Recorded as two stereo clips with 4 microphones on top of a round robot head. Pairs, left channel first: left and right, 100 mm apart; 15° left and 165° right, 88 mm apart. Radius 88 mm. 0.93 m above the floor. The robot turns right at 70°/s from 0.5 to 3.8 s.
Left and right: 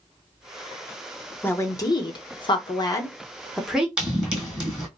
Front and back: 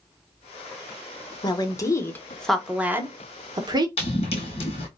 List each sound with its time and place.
1.4 s a woman speaking: 25° left, 0.9 m; by 3.9 s 170° right, 0.9 m
4.0 s running footsteps: 10° right, 1.7 m